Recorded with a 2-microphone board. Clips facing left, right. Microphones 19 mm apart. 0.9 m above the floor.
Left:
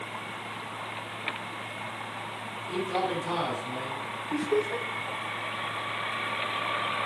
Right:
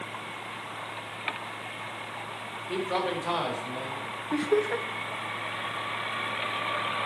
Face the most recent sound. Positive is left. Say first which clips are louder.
# right 2 dB
turn(degrees=-30)  # may be behind; listen again after turning